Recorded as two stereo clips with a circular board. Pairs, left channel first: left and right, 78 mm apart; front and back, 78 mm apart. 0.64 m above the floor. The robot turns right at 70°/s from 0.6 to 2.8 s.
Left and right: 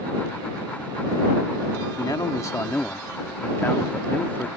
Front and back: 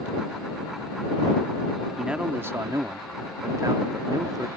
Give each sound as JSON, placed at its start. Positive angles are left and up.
{"t": 2.0, "sound": "a man speaking", "azimuth_deg": 95}